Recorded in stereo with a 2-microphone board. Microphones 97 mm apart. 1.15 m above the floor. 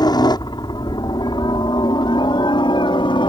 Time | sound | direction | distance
0.0 | a helicopter | 45° left (ahead or behind) | ?